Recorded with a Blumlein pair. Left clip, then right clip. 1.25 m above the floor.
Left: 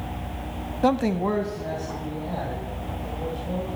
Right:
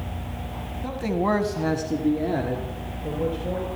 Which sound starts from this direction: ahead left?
A man speaking, at 0.8 s.